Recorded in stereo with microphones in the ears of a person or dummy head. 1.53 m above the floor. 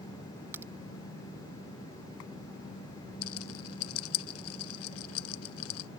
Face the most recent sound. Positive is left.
turn(degrees=75)  # may be behind; listen again after turning